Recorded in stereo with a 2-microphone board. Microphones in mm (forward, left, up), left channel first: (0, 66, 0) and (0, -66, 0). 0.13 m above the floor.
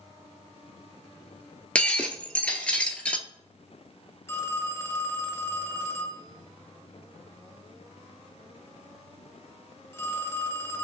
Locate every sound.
1.8 s breaking glass: 10° left (ahead or behind), 0.6 m
4.3 s a phone ringing: 20° left (ahead or behind), 0.9 m